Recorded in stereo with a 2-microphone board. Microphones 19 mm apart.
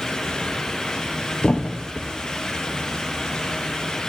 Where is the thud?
85° left, 3 m.